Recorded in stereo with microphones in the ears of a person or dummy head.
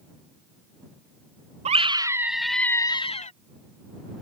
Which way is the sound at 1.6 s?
35° right (ahead or behind).